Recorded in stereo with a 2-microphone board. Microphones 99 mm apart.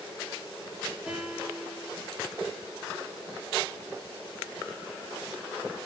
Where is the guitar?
5° right (ahead or behind), 4.5 m.